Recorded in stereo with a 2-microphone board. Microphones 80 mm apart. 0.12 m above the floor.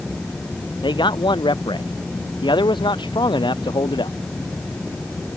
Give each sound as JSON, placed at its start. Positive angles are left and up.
{"t": 0.8, "sound": "a man speaking", "side_deg": 75}